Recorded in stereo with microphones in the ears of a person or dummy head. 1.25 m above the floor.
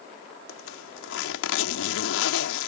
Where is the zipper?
80° left.